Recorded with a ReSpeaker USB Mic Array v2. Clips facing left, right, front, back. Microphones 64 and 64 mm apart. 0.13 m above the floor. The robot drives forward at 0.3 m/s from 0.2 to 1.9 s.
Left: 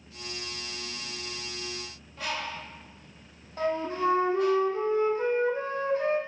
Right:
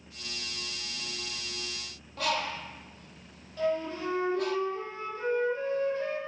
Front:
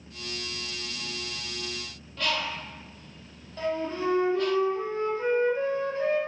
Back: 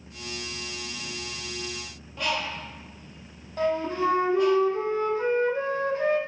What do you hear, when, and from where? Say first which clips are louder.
2.2 s a bird: right 3 dB, back 1 dB; 110° right, 0.7 m
3.6 s a flute: left 2 dB, back 4 dB; 140° left, 1.6 m